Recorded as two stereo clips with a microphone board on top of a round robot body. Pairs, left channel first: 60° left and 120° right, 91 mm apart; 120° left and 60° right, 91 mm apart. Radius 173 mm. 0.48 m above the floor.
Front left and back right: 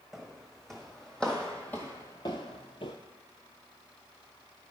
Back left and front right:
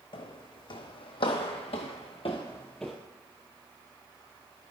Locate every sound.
0.1 s footsteps: 150° left, 1.5 m; by 3.0 s 20° left, 0.5 m